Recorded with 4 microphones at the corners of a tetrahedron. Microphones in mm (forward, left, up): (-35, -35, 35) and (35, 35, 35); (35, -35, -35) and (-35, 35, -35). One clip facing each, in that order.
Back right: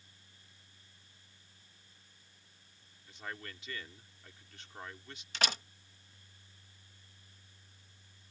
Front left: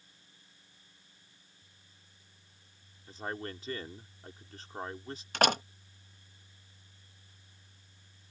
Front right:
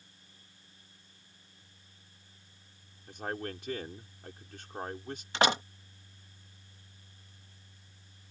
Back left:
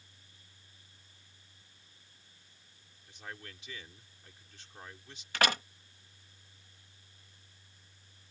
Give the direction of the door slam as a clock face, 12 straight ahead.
11 o'clock.